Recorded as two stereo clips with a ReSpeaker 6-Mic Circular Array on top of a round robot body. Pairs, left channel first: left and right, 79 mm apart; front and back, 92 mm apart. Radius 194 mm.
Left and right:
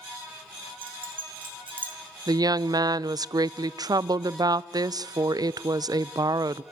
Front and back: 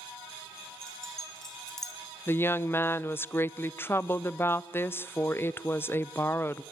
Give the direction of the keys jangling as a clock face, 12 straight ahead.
3 o'clock.